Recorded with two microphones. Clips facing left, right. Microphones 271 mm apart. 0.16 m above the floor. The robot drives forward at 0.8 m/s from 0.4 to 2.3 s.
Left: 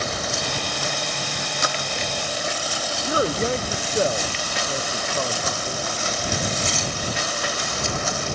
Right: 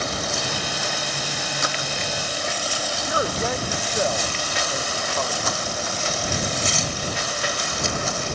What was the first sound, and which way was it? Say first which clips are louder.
A man speaking: left 4 dB; 30° left (ahead or behind).